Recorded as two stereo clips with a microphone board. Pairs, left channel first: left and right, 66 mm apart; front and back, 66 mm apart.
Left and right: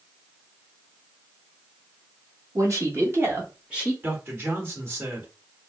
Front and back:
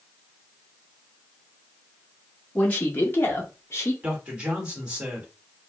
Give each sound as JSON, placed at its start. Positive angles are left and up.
{"t": 2.5, "sound": "a man speaking", "azimuth_deg": -65, "distance_m": 1.2}
{"t": 4.0, "sound": "a man speaking", "azimuth_deg": -115, "distance_m": 1.3}